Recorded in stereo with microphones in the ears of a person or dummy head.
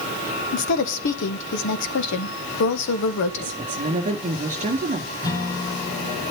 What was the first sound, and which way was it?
A woman speaking, 65° left (ahead or behind).